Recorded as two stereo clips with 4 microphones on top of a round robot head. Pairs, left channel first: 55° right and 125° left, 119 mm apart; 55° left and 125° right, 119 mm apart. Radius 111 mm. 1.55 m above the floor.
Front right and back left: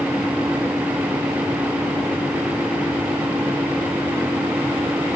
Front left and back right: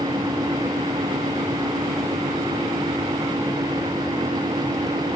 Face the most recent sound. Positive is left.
No sound to turn to.